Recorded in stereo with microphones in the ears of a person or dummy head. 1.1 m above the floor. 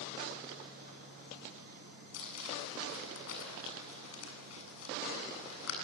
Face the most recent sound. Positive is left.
turn(degrees=80)